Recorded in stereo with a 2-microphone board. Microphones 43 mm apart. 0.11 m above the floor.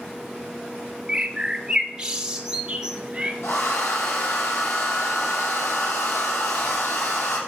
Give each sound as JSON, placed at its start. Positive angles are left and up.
{"t": 1.1, "sound": "a bird", "side_deg": -15, "distance_m": 1.3}
{"t": 3.4, "sound": "a hair dryer", "side_deg": 70, "distance_m": 3.5}